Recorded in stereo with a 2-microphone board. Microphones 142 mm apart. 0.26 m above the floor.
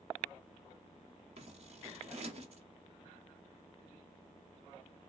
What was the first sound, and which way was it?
Scissors, 50° right (ahead or behind).